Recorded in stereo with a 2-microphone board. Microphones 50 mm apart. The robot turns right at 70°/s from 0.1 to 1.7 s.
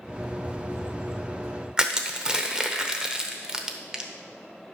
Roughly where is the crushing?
Centre.